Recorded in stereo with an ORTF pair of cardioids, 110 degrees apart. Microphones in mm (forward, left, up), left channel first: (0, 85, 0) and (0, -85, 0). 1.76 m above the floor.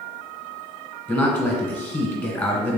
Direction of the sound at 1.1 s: 10° left.